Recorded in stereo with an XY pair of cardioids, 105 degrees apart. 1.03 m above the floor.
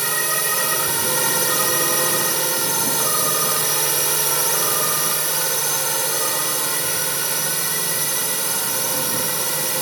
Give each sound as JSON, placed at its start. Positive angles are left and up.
{"t": 0.0, "sound": "a drone", "azimuth_deg": -20}